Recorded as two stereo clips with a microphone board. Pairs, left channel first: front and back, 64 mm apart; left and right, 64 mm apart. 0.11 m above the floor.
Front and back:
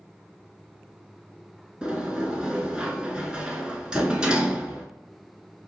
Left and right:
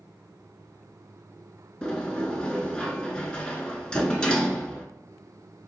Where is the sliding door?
135° left, 0.6 m.